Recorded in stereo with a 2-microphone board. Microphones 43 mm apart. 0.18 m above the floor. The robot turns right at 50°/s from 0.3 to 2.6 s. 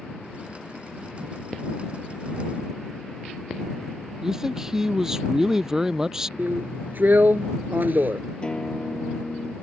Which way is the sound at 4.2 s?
15° right (ahead or behind).